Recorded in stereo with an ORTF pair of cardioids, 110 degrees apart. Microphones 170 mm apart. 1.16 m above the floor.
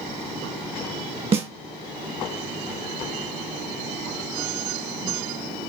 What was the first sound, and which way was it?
A snare drum, 35° right.